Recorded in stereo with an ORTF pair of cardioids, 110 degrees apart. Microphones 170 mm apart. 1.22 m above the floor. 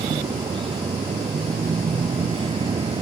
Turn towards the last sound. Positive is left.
turn(degrees=-30)